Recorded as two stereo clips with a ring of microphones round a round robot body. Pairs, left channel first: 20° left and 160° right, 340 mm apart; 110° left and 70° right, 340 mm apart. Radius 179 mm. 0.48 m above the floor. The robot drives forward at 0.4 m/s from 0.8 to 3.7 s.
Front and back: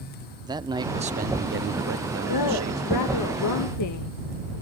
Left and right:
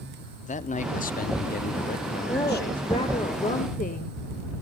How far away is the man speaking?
About 0.7 m.